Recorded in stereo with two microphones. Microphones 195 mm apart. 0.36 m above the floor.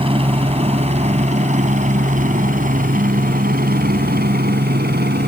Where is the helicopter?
25° right (ahead or behind); by 5.3 s 50° right (ahead or behind).